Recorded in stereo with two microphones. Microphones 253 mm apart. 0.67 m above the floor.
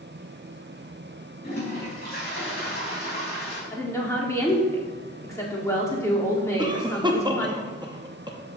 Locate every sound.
1.4 s a toilet flushing: 40° left (ahead or behind), 3 m
3.7 s a woman speaking: 10° left (ahead or behind), 1.8 m
6.6 s a cough: 15° right (ahead or behind), 0.6 m